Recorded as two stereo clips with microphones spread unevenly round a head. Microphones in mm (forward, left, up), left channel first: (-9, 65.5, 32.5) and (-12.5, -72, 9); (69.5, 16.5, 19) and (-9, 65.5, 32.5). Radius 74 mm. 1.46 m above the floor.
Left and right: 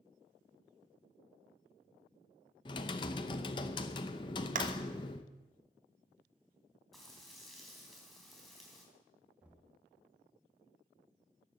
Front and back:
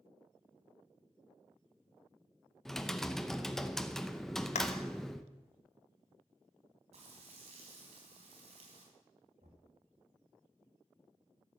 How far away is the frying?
About 3.5 m.